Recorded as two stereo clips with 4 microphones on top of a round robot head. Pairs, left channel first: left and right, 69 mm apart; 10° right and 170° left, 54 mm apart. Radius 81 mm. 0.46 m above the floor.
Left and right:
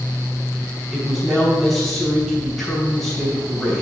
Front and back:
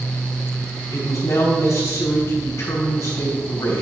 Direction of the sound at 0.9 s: Straight ahead.